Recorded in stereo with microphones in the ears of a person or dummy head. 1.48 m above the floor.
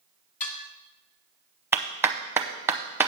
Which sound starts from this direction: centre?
A clap, at 1.7 s.